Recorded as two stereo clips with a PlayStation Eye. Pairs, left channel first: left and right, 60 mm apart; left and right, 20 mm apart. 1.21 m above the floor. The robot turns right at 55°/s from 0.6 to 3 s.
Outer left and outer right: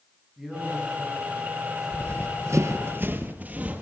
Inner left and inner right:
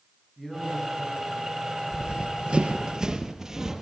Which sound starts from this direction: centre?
A man speaking, at 0.4 s.